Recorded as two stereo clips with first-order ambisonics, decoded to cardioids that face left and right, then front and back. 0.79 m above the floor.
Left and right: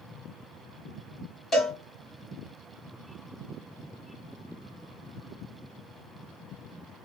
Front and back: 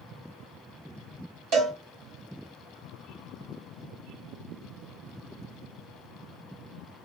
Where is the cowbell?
165° left, 2.5 m.